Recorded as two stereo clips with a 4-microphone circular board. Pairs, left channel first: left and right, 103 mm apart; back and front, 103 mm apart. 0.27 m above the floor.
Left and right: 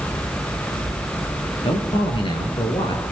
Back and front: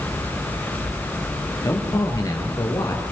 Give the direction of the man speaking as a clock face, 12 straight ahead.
8 o'clock.